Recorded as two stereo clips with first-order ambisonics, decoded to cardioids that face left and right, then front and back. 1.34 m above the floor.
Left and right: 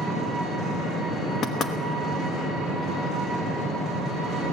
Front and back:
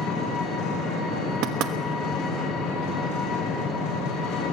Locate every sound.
0.0 s an engine running: 25° left, 7 m
1.4 s knocking: 150° left, 1.2 m